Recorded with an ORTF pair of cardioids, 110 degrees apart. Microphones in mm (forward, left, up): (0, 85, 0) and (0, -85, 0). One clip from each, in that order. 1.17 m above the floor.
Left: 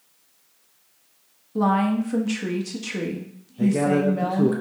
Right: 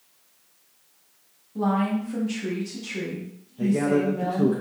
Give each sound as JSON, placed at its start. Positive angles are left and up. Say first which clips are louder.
{"t": 1.6, "sound": "a woman speaking", "louder": "left 4 dB", "azimuth_deg": 50, "distance_m": 1.3}
{"t": 3.6, "sound": "a man speaking", "louder": "left 2 dB", "azimuth_deg": 15, "distance_m": 0.6}